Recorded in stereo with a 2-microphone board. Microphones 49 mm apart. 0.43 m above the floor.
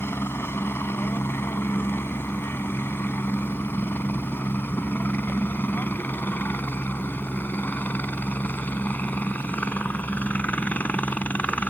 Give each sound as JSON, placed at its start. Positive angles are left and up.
{"t": 0.0, "sound": "a helicopter", "side_deg": 50}